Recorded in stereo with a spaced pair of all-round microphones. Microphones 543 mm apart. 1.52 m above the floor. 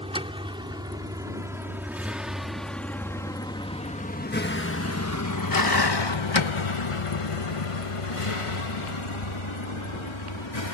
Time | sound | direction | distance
0.0 | a vehicle | 10° right (ahead or behind) | ?